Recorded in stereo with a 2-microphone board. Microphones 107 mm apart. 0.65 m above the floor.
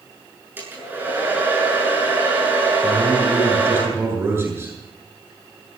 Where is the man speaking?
25° right (ahead or behind), 8.5 m.